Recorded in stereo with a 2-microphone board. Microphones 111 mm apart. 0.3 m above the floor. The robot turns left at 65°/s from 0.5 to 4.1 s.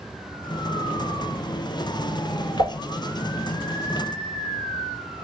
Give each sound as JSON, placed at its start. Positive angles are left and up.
{"t": 2.6, "sound": "dishes clattering", "side_deg": 70, "distance_m": 2.5}